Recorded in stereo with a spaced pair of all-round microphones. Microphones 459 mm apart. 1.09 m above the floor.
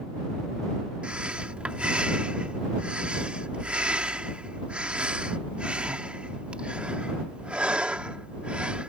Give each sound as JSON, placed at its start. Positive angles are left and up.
{"t": 1.0, "sound": "breathing", "side_deg": 0}